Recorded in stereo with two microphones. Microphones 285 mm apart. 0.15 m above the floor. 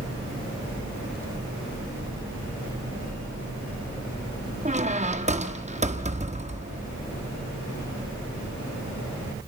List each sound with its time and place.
4.7 s a squeak: 25° right (ahead or behind), 1.3 m